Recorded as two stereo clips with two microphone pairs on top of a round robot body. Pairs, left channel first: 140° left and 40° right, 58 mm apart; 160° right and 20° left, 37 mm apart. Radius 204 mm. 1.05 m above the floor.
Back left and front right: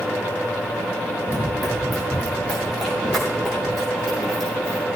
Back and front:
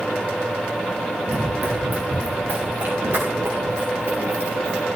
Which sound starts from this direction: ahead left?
Running footsteps, at 1.3 s.